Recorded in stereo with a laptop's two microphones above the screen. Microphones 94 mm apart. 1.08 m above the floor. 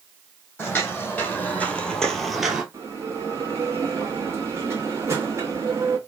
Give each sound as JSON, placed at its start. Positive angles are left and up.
{"t": 0.6, "sound": "footsteps", "side_deg": 25, "distance_m": 2.0}
{"t": 2.7, "sound": "a bell", "side_deg": -30, "distance_m": 1.2}